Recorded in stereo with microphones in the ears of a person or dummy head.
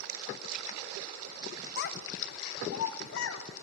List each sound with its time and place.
1.8 s a child speaking: 55° left (ahead or behind), 1.0 m; by 3.4 s 70° left (ahead or behind), 1.7 m